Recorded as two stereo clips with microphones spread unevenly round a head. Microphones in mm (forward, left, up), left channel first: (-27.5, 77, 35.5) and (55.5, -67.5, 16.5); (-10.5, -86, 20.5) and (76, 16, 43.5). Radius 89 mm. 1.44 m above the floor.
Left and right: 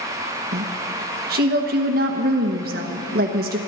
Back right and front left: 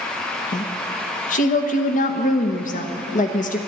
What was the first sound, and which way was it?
A woman speaking, 100° right.